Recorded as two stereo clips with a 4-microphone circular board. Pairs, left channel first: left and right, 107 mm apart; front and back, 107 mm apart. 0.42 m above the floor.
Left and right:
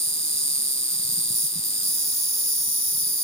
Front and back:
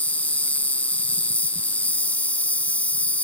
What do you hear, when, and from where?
0.0 s an insect: 75° left